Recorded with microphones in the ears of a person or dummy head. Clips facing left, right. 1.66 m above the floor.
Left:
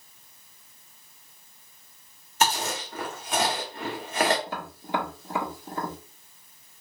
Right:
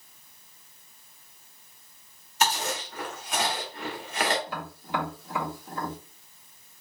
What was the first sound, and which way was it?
Chewing, 35° left (ahead or behind).